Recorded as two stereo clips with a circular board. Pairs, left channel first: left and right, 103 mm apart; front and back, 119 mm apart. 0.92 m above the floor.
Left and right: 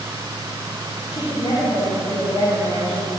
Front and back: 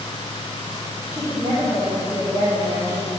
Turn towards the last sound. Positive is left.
turn(degrees=110)